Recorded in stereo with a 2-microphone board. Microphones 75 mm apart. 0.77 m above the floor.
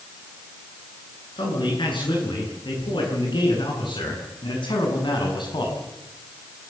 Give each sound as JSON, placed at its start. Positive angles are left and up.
{"t": 1.4, "sound": "a man speaking", "side_deg": 85, "distance_m": 10.0}